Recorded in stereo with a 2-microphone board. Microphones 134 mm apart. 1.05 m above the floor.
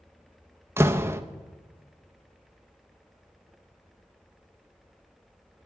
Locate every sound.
0.8 s a door slam: 20° right (ahead or behind), 0.5 m